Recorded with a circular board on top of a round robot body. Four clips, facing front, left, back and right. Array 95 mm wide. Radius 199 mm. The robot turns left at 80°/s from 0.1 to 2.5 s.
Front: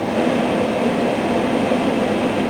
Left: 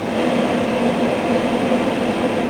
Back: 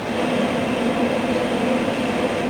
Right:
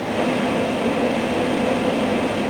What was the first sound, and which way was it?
Only background noise.